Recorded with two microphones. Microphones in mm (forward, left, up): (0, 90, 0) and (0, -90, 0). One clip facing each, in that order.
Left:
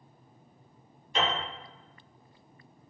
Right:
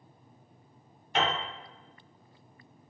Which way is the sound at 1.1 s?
60° right (ahead or behind).